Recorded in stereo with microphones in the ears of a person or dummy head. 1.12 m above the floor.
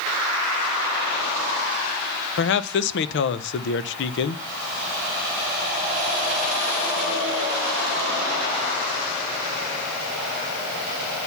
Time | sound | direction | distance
2.4 | a man speaking | 65° left (ahead or behind) | 0.7 m